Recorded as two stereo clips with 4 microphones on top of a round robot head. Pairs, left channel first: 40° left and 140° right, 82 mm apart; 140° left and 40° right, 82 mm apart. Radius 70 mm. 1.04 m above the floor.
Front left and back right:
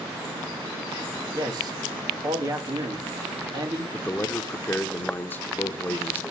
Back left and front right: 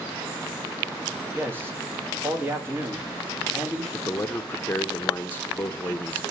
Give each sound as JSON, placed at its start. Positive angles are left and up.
{"t": 1.3, "sound": "a man speaking", "azimuth_deg": -105, "distance_m": 2.5}
{"t": 3.9, "sound": "a man speaking", "azimuth_deg": 90, "distance_m": 0.7}